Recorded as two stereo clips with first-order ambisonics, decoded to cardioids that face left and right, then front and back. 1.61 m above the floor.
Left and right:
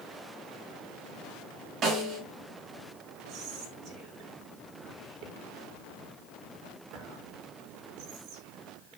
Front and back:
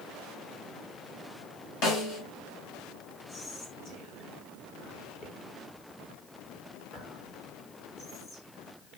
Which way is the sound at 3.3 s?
50° right.